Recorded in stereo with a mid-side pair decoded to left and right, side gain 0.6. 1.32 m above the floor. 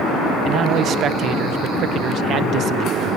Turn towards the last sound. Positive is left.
turn(degrees=-50)